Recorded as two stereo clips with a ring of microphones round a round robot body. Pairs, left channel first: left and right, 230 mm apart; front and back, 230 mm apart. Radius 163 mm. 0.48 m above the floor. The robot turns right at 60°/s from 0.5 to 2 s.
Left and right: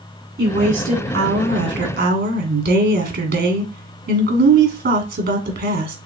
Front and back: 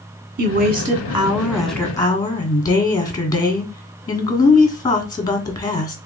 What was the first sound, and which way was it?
A woman speaking, 160° right.